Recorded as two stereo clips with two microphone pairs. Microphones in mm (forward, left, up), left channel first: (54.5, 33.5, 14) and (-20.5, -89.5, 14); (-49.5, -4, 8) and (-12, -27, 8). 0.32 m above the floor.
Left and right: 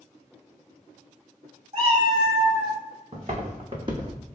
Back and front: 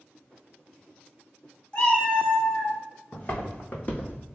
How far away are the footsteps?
About 1.3 m.